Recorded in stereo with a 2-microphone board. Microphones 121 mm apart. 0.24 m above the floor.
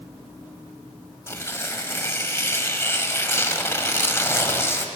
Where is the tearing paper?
20° left (ahead or behind), 0.9 m.